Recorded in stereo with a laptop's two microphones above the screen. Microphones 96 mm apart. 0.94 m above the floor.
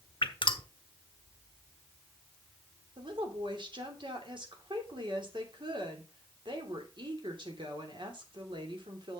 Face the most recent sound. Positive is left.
turn(degrees=-55)  # may be behind; listen again after turning